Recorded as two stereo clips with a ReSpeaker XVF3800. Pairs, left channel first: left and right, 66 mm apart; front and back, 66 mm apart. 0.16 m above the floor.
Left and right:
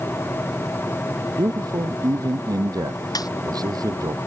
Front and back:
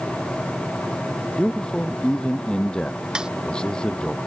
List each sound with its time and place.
1.4 s a man speaking: 80° right
3.1 s a snare drum: 100° left